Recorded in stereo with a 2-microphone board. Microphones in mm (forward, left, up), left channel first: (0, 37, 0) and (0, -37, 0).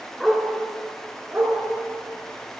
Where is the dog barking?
Centre (ahead or behind), 2.5 m; by 1.6 s 25° right (ahead or behind), 3 m.